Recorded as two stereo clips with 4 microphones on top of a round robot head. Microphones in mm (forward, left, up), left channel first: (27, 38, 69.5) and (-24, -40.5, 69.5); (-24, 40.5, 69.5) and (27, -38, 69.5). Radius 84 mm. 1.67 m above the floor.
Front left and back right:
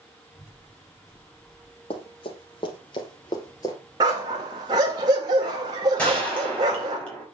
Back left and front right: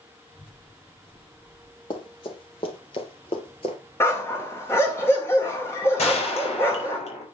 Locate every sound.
0.3 s a child speaking: 155° left, 6.5 m; by 1.8 s 150° left, 8 m
1.9 s running footsteps: 90° left, 3 m; by 3.8 s 105° left, 2.0 m
4.0 s a dog barking: 170° right, 2 m
6.0 s a gunshot: 135° left, 5.5 m